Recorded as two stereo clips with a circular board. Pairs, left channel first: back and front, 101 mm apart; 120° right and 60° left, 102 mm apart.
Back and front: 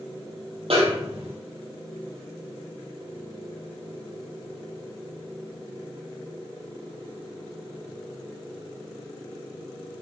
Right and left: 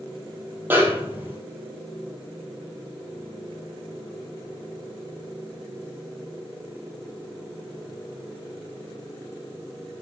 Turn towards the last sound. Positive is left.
turn(degrees=-10)